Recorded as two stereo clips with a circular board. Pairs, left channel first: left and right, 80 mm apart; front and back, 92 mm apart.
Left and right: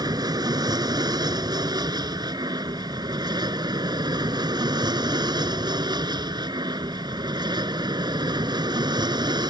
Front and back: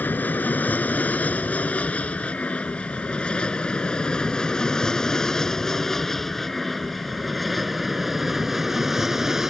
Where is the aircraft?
70° right; by 9.5 s 95° right.